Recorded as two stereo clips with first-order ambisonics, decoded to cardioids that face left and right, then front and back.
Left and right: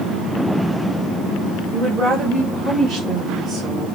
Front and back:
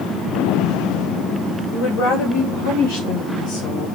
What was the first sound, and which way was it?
A woman speaking, 30° right.